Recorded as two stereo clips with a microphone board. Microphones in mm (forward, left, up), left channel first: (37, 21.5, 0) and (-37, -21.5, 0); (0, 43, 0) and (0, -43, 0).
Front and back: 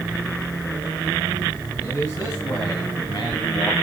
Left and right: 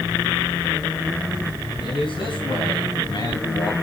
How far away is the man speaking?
About 5 m.